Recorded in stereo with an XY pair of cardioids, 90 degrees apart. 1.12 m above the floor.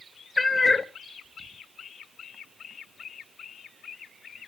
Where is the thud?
I don't hear a thud.